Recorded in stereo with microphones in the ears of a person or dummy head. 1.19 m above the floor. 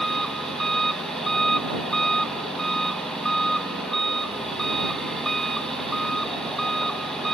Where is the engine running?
5° left (ahead or behind).